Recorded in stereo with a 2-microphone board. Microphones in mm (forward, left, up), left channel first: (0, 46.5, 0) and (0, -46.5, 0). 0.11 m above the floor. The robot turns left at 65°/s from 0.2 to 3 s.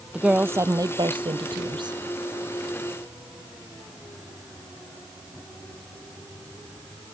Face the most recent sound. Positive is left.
turn(degrees=170)